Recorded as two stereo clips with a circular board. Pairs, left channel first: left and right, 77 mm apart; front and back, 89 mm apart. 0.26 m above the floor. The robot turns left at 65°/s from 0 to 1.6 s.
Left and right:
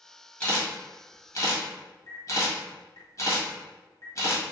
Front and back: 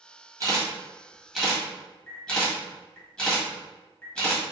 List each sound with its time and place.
0.4 s a camera shutter: 155° left, 1.5 m; by 4.4 s 75° left, 1.5 m